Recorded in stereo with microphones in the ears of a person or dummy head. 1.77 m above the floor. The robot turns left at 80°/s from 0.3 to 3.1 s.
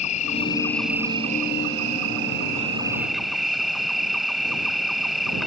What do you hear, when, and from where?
0.0 s an insect: 40° left; by 5.5 s 175° left